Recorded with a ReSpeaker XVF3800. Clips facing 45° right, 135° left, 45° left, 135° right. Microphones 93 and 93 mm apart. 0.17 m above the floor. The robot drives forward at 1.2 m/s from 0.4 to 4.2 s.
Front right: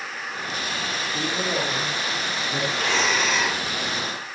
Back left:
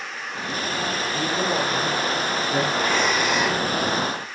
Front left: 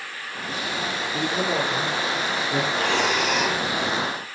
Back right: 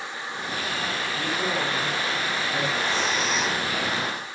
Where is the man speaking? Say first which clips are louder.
Back left 2 dB, front left 4 dB; 50° left, 7.5 m; by 2.6 s 60° left, 6 m.